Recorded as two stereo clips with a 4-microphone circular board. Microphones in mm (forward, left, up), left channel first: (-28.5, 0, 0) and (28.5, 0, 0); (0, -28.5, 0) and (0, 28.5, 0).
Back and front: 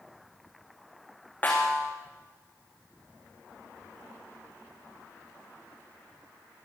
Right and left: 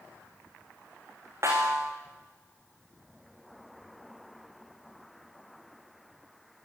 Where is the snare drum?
125° left, 7.5 m.